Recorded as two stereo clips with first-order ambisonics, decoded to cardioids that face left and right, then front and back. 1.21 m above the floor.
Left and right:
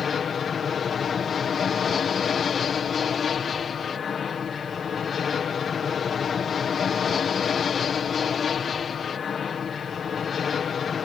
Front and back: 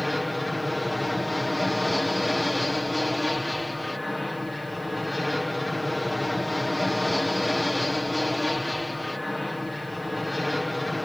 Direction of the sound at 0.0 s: 70° left.